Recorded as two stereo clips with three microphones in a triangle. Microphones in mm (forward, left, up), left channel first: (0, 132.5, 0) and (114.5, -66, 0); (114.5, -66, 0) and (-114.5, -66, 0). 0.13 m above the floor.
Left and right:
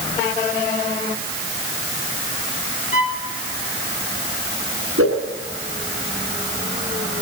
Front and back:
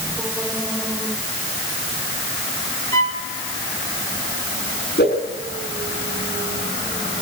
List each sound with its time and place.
2.9 s a violin: 70° left, 2.5 m
5.0 s a whoosh: 45° right, 7.5 m